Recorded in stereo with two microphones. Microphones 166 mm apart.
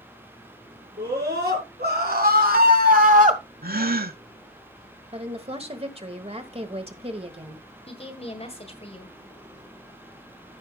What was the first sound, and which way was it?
A scream, 75° right (ahead or behind).